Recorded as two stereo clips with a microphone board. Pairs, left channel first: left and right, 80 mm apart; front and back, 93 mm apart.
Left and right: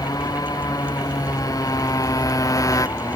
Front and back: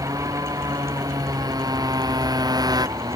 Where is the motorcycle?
130° left; by 3.2 s 135° left.